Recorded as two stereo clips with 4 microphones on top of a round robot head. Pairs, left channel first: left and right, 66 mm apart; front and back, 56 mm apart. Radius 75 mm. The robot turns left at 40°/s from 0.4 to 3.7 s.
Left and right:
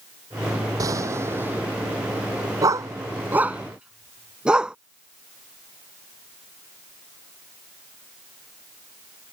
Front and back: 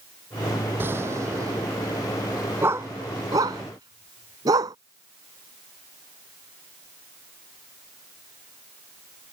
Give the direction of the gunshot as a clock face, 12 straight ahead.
4 o'clock.